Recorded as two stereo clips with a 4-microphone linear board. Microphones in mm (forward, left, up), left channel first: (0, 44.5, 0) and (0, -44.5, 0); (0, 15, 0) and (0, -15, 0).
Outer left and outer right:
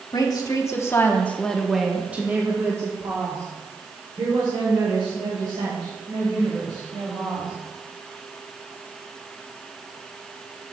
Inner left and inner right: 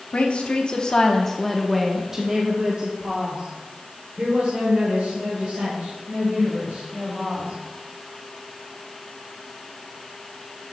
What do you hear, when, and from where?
0.1 s a woman speaking: 50° left (ahead or behind), 1.3 m; by 7.5 s 70° right (ahead or behind), 3.5 m